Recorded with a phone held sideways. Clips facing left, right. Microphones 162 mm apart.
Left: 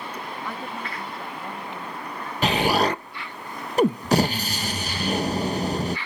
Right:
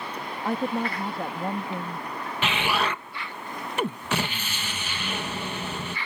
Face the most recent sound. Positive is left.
turn(degrees=40)  # may be behind; listen again after turning